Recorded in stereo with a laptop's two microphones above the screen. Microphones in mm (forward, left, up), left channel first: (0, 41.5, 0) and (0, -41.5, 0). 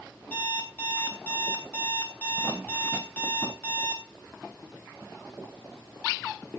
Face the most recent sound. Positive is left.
turn(degrees=20)  # may be behind; listen again after turning